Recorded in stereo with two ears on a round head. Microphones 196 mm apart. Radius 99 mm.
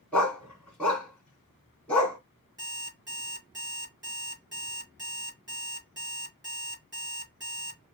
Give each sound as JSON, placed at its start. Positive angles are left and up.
{"t": 0.1, "sound": "a dog barking", "side_deg": 5, "distance_m": 1.9}
{"t": 2.6, "sound": "an alarm clock", "side_deg": -15, "distance_m": 4.0}